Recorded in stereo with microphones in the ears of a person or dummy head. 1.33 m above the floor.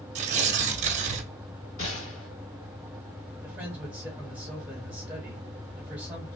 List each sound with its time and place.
0.1 s tearing paper: 35° right (ahead or behind), 0.6 m
1.8 s a gunshot: 45° left (ahead or behind), 2.0 m
3.4 s a man speaking: 10° right (ahead or behind), 1.1 m